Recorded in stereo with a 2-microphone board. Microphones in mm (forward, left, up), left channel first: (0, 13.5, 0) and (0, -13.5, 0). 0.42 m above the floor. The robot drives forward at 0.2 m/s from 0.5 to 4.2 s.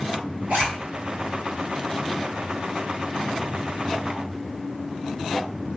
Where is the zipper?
80° right, 1.8 m.